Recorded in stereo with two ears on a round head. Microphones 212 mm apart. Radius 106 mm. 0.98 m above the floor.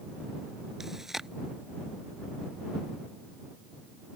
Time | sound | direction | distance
0.8 | chewing | centre (ahead or behind) | ?